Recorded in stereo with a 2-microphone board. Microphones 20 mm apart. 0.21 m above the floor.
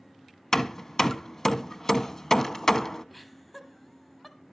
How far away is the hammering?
About 0.5 m.